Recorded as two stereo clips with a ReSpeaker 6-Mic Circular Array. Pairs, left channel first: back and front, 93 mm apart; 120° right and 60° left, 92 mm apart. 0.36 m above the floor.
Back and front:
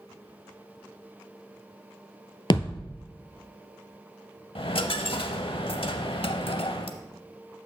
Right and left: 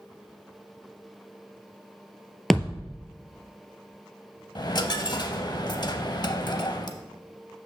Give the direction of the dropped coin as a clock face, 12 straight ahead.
5 o'clock.